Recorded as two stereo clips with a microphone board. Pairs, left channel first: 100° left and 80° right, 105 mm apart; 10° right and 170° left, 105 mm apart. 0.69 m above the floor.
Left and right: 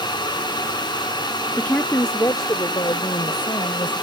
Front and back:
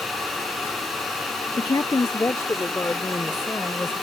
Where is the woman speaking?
25° left; by 4.0 s 60° left.